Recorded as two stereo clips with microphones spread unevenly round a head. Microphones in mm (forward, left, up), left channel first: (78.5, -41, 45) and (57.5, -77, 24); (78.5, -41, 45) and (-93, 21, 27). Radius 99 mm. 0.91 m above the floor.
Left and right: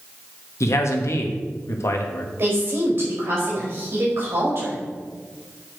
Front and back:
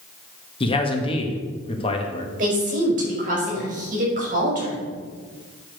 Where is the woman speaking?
155° right, 4.5 m.